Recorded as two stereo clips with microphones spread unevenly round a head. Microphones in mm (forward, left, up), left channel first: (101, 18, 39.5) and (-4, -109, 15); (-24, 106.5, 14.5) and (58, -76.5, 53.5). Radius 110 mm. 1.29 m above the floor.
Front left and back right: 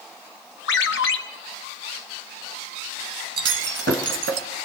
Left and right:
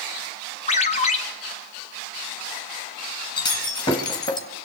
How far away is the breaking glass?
About 1.8 m.